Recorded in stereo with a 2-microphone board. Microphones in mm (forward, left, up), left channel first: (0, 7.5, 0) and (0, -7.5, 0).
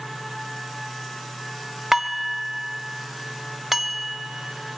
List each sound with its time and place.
1.9 s dishes clattering: 20° right (ahead or behind), 1.0 m